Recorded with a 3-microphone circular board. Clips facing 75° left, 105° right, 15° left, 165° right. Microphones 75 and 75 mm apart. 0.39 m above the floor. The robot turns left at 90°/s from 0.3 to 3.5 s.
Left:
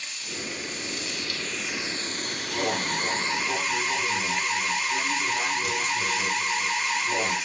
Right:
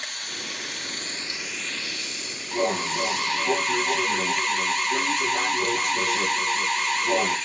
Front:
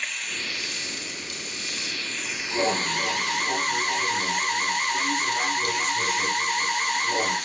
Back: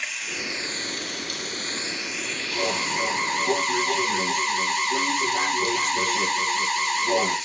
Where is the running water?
80° right, 2.5 m; by 7.5 s 10° right, 2.5 m.